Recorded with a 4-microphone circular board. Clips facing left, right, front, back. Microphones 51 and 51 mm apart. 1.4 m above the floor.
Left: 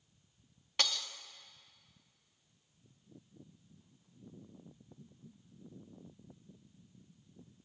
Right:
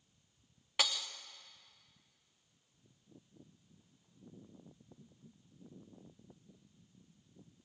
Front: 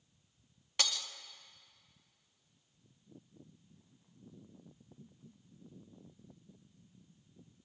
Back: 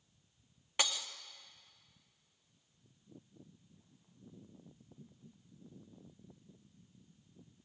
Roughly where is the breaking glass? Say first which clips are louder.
Even, back 1 dB; behind right.